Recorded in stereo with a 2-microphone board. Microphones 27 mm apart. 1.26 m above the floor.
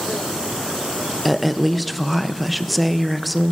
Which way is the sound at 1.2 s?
Centre (ahead or behind).